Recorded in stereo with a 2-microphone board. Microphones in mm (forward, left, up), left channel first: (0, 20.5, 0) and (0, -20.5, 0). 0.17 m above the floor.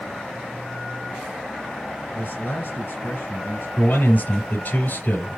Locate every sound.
2.1 s a man speaking: 60° left (ahead or behind), 3 m
3.8 s a man speaking: 50° left (ahead or behind), 3.5 m